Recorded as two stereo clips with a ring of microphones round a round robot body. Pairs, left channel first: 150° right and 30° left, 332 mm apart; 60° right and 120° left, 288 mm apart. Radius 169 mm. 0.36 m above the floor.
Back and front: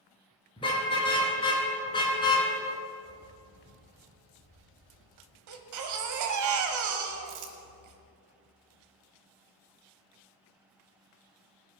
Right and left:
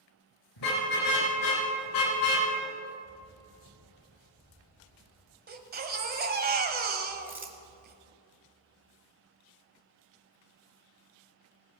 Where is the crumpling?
35° left, 2.5 m.